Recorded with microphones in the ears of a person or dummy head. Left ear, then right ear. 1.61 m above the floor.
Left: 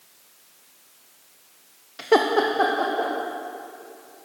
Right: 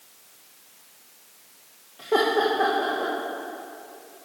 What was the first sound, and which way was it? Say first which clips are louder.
Laughter: left 2 dB; 60° left (ahead or behind).